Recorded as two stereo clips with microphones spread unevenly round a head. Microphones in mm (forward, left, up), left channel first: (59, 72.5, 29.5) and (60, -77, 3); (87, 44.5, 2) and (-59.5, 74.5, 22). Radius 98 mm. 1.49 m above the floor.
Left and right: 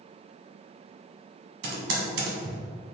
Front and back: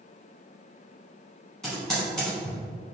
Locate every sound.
1.6 s typing on a keyboard: 100° right, 0.9 m